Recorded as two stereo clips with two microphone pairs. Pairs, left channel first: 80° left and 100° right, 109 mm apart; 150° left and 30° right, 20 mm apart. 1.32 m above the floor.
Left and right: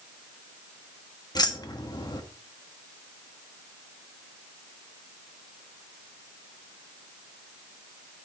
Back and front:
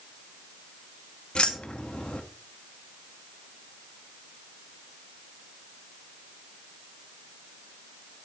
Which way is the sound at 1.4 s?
125° left.